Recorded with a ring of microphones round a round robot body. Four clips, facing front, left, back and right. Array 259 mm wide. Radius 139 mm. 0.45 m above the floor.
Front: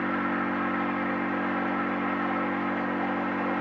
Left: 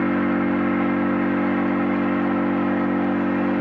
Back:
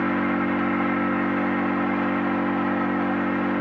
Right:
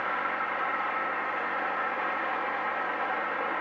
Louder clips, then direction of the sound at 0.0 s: Left 11 dB, back 5 dB; 110° left.